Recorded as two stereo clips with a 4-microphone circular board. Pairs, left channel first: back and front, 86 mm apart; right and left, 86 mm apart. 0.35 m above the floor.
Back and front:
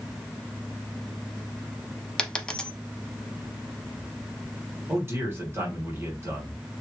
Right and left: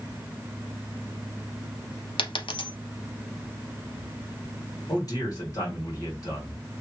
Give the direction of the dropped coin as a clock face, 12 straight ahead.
3 o'clock.